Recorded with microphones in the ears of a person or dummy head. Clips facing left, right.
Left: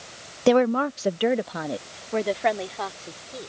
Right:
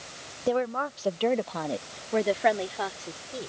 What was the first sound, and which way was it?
A woman speaking, 75° left (ahead or behind).